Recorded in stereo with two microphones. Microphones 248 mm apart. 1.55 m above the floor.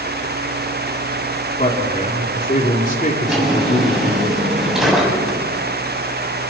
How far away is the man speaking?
About 3.5 m.